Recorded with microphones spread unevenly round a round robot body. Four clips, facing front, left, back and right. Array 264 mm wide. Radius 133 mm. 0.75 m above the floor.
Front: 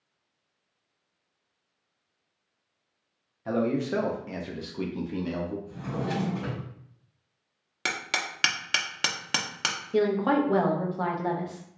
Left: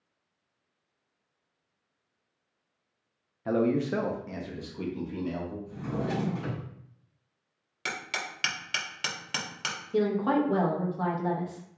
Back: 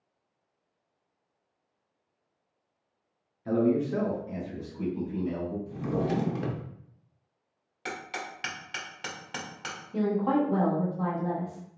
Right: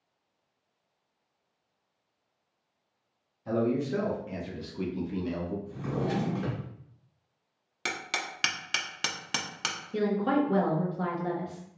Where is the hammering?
25° right, 0.9 m.